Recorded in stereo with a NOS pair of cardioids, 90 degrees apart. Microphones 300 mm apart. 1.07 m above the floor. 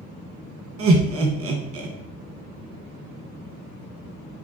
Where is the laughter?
50° right, 1.1 m.